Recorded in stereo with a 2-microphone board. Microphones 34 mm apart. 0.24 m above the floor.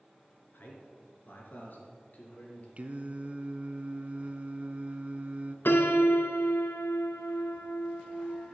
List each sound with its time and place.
0.5 s a man speaking: 70° left (ahead or behind), 3 m; by 2.7 s 50° left (ahead or behind), 4 m
2.8 s singing: 35° right (ahead or behind), 0.7 m
5.7 s a piano: 70° left (ahead or behind), 1.0 m